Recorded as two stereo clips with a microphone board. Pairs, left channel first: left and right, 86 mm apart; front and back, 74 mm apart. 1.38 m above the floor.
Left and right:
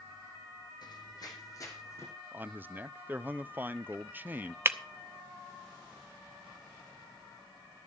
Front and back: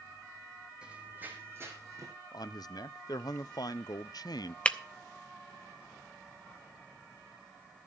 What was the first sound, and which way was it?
Running footsteps, 105° left.